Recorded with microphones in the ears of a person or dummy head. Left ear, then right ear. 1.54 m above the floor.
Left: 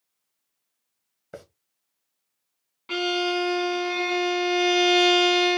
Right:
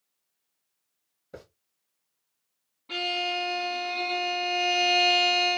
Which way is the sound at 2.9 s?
60° left (ahead or behind).